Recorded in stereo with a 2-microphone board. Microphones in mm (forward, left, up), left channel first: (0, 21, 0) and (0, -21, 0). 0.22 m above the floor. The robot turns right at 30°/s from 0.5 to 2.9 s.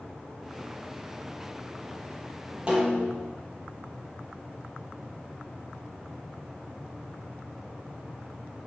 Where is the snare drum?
25° right (ahead or behind), 6 m; by 3.3 s 30° right (ahead or behind), 6 m.